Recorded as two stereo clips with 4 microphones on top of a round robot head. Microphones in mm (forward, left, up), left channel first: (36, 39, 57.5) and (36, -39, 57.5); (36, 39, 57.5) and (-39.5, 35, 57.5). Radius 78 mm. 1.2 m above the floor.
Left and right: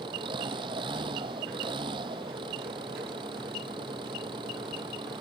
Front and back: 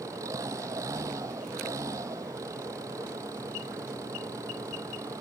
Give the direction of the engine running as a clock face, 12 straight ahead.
4 o'clock.